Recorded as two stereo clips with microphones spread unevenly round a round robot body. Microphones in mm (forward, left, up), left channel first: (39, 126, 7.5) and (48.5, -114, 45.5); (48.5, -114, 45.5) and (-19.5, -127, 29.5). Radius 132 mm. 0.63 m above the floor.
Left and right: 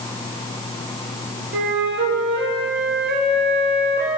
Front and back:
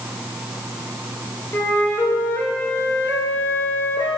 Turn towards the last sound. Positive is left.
turn(degrees=-50)